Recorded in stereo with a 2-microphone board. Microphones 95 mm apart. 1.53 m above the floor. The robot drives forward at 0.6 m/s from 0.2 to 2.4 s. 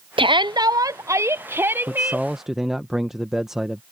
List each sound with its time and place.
0.2 s a shout: 65° right (ahead or behind); by 2.3 s 20° right (ahead or behind)
1.9 s a man speaking: 5° right (ahead or behind)